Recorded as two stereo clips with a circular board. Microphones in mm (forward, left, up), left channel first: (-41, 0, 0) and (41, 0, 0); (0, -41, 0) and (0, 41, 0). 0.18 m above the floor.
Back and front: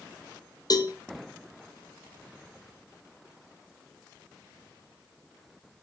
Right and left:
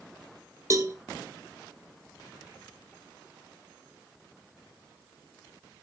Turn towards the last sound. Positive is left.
turn(degrees=145)